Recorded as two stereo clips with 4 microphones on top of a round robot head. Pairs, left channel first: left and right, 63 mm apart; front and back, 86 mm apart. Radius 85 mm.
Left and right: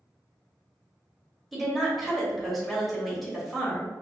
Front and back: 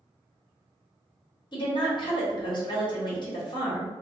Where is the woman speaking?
Straight ahead, 1.3 m.